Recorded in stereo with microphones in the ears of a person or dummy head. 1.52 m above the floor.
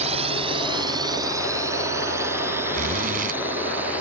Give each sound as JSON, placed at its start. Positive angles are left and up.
{"t": 0.0, "sound": "a drone", "side_deg": -35}
{"t": 2.7, "sound": "a zipper", "side_deg": -45}